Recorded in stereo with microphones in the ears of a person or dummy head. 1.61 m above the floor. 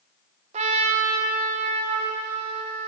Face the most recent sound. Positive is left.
turn(degrees=-35)  # may be behind; listen again after turning